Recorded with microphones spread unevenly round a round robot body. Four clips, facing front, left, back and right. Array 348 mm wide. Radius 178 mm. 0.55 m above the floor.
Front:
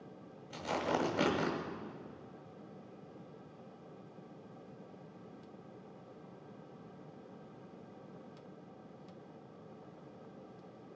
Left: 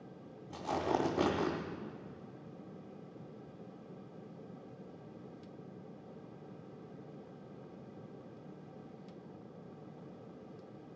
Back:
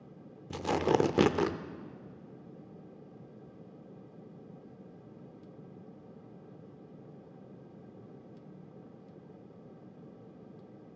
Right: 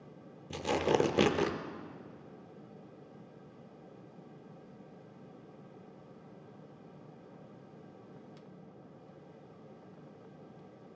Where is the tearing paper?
150° right, 0.6 m.